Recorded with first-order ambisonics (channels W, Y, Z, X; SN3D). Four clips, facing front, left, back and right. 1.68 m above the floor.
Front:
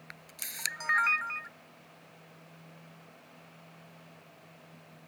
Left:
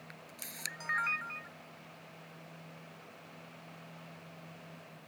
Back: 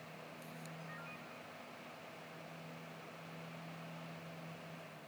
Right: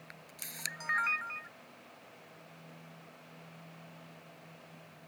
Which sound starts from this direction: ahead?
A camera shutter, at 0.1 s.